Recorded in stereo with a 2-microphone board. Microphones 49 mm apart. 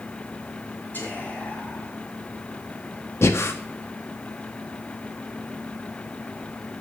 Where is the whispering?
35° left (ahead or behind), 6.5 m.